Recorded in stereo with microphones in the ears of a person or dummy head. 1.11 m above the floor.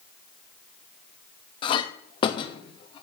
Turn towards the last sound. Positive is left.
turn(degrees=25)  # may be behind; listen again after turning